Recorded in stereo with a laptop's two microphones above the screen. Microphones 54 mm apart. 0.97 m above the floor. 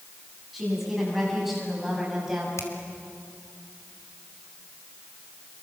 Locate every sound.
0.5 s a woman speaking: 5° right (ahead or behind), 7.5 m; by 2.5 s 10° right (ahead or behind), 6 m
2.6 s a finger snap: 70° left (ahead or behind), 3 m